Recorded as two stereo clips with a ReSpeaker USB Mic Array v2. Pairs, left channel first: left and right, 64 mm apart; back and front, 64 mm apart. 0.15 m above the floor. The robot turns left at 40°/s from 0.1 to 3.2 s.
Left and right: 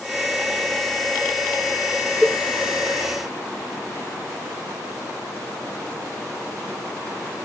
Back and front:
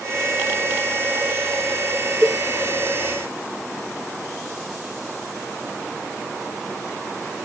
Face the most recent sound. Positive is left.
turn(degrees=165)